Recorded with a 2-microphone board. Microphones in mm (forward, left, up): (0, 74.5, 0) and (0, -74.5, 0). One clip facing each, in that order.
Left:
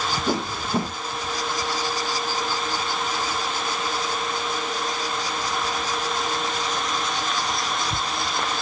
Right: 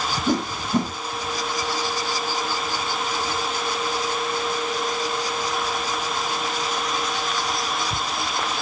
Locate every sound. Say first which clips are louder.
0.3 s a whoosh: right 4 dB; 5° left (ahead or behind), 3.5 m